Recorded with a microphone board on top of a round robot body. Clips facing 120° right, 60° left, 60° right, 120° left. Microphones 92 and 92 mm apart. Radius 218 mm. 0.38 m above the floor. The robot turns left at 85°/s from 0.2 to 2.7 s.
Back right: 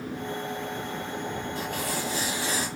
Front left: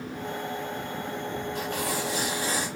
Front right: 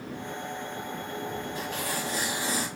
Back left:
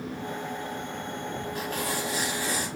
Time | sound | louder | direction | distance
1.6 | tearing paper | front left 1 dB, back left 2 dB | 85° left | 1.1 m